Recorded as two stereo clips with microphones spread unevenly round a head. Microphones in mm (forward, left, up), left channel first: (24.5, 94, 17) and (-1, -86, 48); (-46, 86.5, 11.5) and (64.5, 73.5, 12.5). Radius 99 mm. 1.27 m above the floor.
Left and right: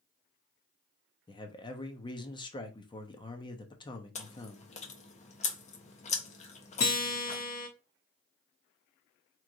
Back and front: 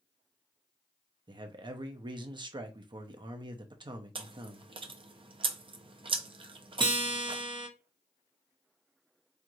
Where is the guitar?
40° left, 1.2 m.